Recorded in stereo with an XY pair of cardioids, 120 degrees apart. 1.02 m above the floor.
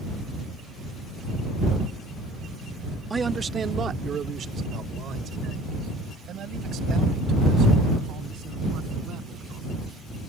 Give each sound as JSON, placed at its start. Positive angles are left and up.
{"t": 3.1, "sound": "a man speaking", "azimuth_deg": -20}